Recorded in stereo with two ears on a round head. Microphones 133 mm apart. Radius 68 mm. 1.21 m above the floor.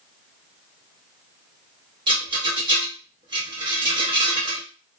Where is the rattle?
30° right (ahead or behind), 1.4 m.